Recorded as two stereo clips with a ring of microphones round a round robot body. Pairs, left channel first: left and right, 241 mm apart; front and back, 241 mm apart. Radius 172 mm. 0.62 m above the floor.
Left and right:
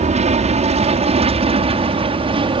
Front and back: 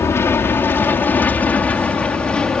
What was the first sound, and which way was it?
An aircraft, 70° right.